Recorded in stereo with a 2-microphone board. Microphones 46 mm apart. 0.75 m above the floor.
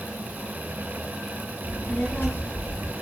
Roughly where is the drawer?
No drawer in this recording.